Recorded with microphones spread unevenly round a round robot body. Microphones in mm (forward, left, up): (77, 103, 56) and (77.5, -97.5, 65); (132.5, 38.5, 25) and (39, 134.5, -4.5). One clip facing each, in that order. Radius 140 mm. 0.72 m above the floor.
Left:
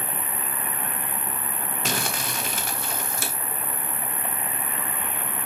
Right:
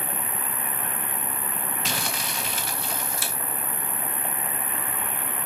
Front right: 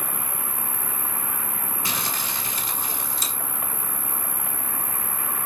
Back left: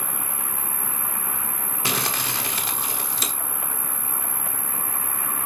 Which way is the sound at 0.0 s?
85° left.